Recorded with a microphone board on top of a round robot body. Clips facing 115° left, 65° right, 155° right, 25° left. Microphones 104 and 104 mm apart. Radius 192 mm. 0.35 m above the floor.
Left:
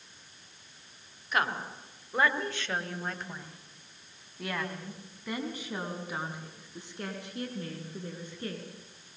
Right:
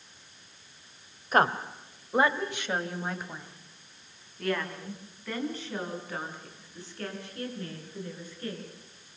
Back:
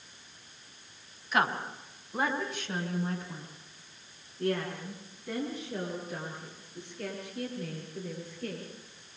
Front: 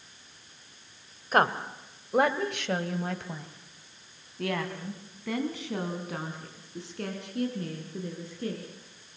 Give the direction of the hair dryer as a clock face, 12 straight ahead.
No hair dryer in this recording.